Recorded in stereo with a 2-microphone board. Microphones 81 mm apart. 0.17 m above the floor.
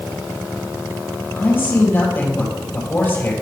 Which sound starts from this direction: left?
A man speaking, at 1.3 s.